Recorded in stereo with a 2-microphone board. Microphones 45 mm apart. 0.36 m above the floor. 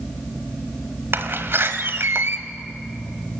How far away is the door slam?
About 1.5 m.